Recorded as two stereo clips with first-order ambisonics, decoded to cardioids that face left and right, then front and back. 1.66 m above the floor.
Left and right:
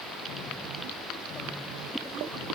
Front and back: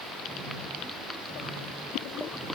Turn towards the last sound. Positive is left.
No sound to turn to.